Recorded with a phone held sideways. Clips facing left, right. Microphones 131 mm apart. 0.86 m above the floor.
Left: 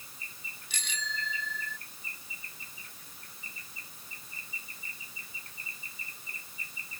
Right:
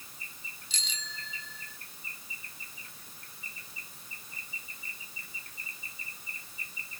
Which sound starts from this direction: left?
A bicycle bell, at 0.7 s.